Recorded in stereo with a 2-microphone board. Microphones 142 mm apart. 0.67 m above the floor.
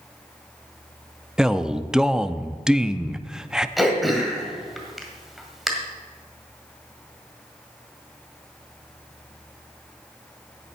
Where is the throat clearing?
Centre (ahead or behind), 1.7 m.